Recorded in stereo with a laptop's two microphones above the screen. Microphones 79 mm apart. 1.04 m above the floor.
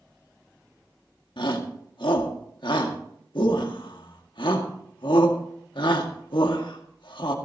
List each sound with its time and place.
1.4 s a shout: 80° left, 1.8 m